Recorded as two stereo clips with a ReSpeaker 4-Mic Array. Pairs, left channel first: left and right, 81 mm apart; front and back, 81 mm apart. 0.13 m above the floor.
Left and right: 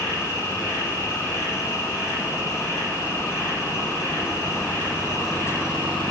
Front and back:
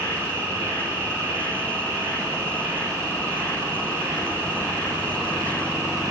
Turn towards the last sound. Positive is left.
turn(degrees=120)